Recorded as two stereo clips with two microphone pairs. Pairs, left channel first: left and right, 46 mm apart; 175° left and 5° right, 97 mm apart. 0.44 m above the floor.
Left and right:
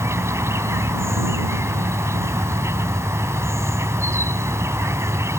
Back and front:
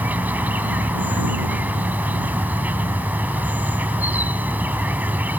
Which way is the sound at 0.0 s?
75° right.